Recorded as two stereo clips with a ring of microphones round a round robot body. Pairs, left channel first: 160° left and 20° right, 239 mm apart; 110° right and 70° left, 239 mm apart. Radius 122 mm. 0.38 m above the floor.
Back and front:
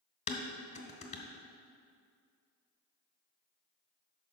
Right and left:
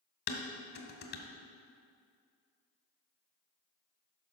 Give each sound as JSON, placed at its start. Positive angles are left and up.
{"t": 0.3, "sound": "dishes clattering", "azimuth_deg": -145, "distance_m": 1.1}